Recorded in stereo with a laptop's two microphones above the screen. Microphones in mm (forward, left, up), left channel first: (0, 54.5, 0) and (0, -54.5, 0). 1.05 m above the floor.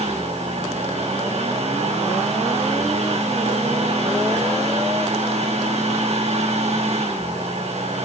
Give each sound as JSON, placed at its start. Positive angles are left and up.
{"t": 0.0, "sound": "a fan", "side_deg": -75, "distance_m": 5.0}